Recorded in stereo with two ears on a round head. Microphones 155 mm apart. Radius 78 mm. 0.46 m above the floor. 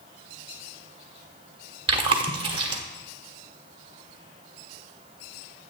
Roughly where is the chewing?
Right.